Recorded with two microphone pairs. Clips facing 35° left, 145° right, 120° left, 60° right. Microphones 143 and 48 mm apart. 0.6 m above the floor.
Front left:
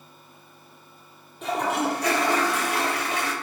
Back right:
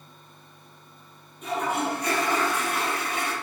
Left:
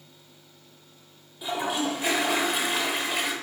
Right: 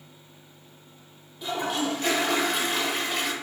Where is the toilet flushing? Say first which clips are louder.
Front left 2 dB, even; 35° left, 0.7 m.